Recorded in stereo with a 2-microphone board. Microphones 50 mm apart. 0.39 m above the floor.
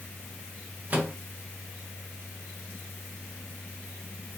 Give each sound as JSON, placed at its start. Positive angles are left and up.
{"t": 0.9, "sound": "a microwave", "side_deg": -35, "distance_m": 0.7}